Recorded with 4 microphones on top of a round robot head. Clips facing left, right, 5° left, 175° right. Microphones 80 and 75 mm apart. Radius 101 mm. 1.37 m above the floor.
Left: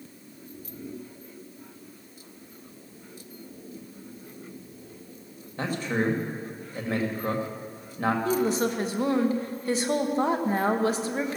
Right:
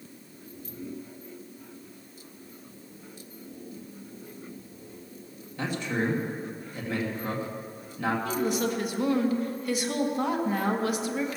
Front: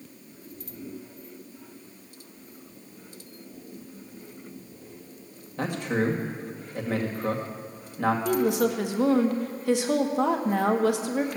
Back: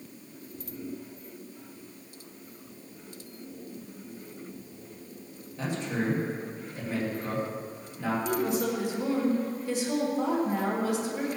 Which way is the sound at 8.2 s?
30° left.